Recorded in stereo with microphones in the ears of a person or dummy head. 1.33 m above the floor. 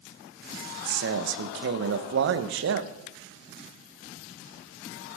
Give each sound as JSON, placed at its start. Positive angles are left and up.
{"t": 0.9, "sound": "a man speaking", "side_deg": -80, "distance_m": 1.1}